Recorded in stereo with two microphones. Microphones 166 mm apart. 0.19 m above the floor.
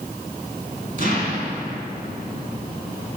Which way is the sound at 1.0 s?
50° right (ahead or behind).